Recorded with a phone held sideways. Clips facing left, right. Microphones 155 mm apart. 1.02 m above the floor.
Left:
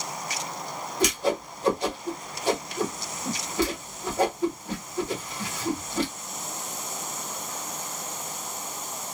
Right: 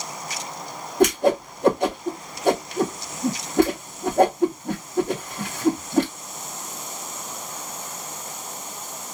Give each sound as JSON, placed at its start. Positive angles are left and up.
{"t": 1.0, "sound": "a whoosh", "side_deg": -60, "distance_m": 0.8}